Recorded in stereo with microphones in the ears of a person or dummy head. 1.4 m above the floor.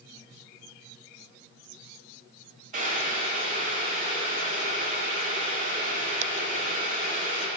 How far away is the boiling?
About 0.9 m.